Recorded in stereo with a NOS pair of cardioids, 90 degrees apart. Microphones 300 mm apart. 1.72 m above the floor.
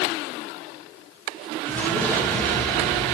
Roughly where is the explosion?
Ahead.